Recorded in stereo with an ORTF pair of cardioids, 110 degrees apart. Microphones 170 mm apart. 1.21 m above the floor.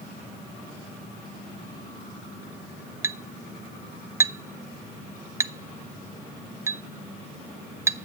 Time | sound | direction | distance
3.0 | a clink | 15° right | 0.5 m